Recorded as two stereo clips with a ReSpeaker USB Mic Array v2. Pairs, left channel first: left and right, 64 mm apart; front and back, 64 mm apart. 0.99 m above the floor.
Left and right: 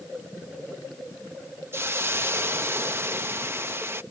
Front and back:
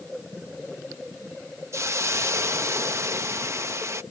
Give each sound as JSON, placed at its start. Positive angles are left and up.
{"t": 1.7, "sound": "a hiss", "azimuth_deg": -140}